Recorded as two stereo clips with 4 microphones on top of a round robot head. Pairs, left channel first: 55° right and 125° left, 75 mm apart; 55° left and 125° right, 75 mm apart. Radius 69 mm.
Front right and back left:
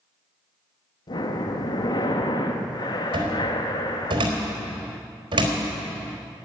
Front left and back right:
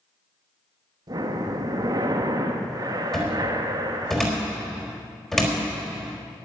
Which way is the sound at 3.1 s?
140° left.